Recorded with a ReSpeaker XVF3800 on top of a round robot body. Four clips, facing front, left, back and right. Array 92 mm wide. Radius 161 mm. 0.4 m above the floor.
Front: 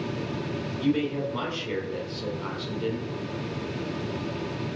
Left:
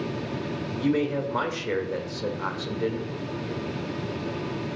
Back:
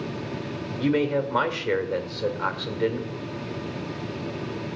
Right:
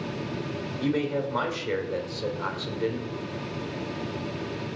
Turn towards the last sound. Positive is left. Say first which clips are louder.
# left 2 dB, back 3 dB
turn(degrees=160)